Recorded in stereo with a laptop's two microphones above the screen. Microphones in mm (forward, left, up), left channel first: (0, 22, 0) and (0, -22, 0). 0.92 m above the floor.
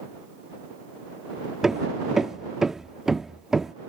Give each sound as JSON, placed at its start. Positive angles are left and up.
{"t": 1.6, "sound": "hammering", "side_deg": -10}